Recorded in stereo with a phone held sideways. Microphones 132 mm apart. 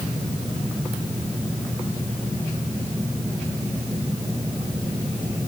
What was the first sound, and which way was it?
Only background noise.